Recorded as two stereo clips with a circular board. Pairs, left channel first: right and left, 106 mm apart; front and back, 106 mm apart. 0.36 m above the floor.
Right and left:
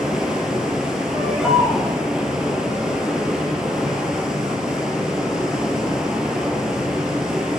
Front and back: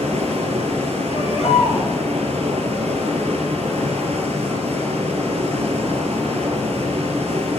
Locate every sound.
0.0 s running water: 175° left, 2.5 m
1.1 s a baby crying: 5° left, 6 m